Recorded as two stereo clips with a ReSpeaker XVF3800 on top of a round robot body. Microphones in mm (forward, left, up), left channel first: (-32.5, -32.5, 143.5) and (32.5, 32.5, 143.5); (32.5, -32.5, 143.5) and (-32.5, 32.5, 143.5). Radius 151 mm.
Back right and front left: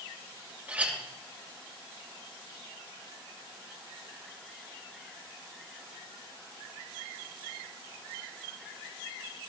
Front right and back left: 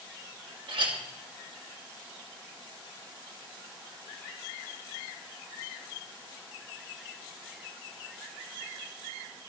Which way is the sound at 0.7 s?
120° left.